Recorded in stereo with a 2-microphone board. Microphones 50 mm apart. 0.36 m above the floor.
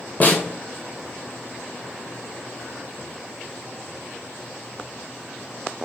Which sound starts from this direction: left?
A snare drum, at 0.2 s.